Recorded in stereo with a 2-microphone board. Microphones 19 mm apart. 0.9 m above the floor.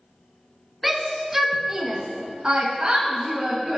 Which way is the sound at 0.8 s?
10° right (ahead or behind).